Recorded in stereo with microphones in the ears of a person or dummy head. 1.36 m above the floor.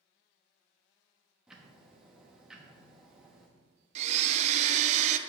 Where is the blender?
40° right (ahead or behind), 0.5 m.